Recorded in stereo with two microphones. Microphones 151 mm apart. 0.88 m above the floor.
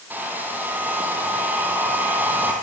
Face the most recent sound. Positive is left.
turn(degrees=-10)  # may be behind; listen again after turning